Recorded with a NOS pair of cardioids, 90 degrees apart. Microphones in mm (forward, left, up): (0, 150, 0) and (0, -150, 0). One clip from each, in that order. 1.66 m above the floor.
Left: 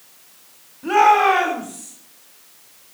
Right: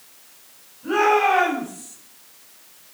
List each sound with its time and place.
0.8 s a shout: 65° left, 4.5 m; by 1.9 s 75° left, 4.5 m